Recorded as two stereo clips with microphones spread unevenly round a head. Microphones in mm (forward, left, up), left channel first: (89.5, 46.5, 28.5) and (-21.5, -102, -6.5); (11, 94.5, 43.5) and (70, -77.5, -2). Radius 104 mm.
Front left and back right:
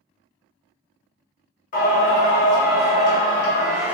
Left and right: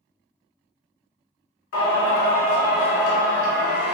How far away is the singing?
About 1.8 m.